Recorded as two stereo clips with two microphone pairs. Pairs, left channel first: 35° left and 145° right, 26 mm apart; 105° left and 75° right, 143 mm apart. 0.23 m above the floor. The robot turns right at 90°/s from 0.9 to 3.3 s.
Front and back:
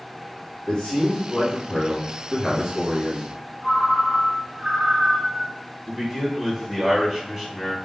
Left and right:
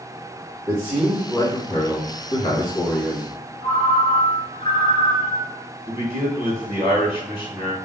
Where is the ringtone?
160° left, 1.6 m.